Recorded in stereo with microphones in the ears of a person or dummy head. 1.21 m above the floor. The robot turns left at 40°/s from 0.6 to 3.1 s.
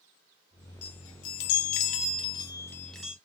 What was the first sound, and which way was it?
A chime, 90° left.